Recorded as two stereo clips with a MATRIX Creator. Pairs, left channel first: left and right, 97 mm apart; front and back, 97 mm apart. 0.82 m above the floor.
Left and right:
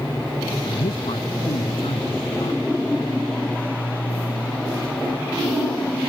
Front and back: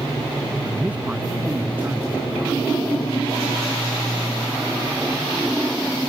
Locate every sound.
0.6 s a man speaking: 100° left; by 2.6 s 110° left